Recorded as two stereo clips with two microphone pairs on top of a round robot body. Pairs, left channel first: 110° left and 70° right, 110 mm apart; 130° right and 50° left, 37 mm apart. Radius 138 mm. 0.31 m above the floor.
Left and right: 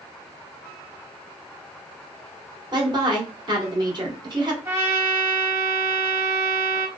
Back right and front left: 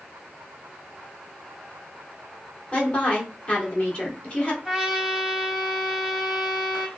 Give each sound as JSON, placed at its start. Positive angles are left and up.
{"t": 2.7, "sound": "a woman speaking", "azimuth_deg": -75, "distance_m": 1.6}
{"t": 4.7, "sound": "a trumpet", "azimuth_deg": -25, "distance_m": 1.2}